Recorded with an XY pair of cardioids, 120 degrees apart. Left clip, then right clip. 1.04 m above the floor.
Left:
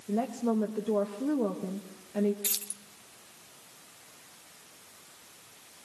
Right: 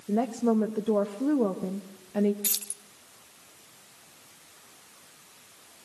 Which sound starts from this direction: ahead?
Keys jangling, at 2.4 s.